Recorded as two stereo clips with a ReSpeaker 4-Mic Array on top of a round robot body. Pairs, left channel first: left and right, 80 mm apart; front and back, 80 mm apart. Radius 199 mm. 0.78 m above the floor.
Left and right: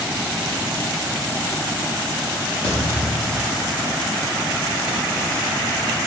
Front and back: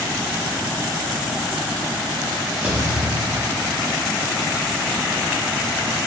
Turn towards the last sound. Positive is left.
turn(degrees=110)